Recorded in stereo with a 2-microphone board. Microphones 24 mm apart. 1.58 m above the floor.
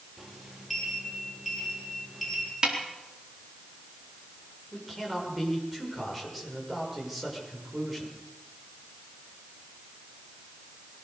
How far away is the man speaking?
About 6.5 m.